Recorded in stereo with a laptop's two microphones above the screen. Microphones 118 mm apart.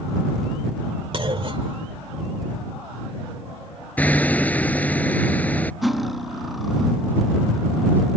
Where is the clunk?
50° right (ahead or behind).